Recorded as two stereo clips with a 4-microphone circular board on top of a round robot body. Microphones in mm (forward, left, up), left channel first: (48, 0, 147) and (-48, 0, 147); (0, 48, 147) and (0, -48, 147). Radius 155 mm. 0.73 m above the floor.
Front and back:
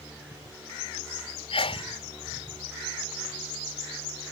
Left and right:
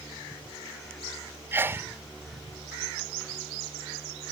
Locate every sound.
1.5 s a sneeze: 25° right